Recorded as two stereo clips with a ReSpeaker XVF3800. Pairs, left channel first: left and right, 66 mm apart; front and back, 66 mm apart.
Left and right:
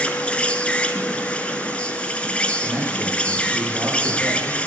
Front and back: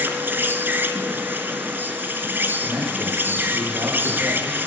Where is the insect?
150° left, 1.8 m.